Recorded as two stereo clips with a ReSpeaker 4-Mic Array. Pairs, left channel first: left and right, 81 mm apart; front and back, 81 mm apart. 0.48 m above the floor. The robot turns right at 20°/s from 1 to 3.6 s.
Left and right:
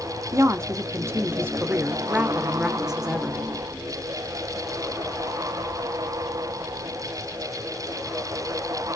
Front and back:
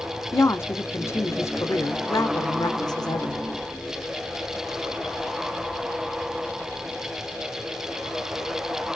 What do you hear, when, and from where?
0.3 s a woman speaking: 45° right, 1.0 m; by 3.5 s 5° left, 1.0 m